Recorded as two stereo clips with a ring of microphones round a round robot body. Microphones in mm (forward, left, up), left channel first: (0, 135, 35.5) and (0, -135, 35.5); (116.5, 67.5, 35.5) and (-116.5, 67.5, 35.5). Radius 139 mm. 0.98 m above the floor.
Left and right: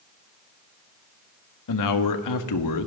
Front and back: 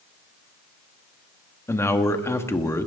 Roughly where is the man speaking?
Left.